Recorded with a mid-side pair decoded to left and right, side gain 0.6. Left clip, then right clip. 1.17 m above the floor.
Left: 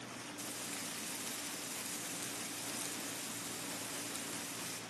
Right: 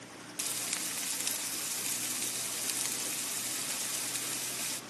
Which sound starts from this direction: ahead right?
Frying, at 0.4 s.